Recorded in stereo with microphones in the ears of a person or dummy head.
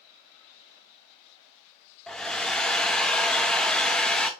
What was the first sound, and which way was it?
A hair dryer, 5° left (ahead or behind).